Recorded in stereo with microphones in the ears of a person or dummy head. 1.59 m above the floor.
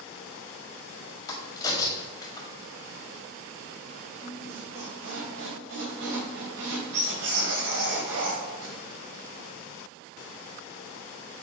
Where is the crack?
20° left (ahead or behind), 2.0 m.